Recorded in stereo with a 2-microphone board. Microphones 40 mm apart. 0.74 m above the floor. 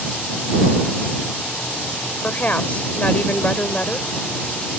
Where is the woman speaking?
40° left (ahead or behind).